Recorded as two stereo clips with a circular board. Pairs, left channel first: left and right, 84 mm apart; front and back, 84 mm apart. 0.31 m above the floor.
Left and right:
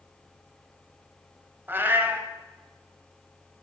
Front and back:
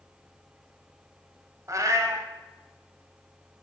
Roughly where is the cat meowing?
Behind right.